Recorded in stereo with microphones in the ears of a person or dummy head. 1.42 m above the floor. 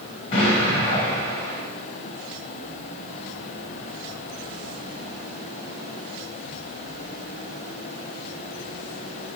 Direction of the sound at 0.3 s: 20° left (ahead or behind).